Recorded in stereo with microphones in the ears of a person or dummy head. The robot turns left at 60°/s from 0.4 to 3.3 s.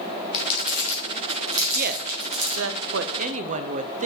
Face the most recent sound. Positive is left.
turn(degrees=-45)  # may be behind; listen again after turning